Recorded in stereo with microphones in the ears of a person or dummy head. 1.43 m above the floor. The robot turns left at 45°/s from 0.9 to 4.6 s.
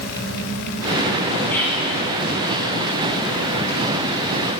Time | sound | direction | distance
1.5 | whispering | 10° left (ahead or behind) | 0.9 m